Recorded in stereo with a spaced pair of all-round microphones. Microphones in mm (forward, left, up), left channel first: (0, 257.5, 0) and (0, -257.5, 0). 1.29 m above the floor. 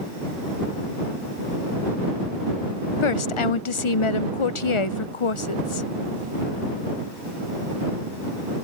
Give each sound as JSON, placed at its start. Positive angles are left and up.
{"t": 3.0, "sound": "a woman speaking", "side_deg": 70}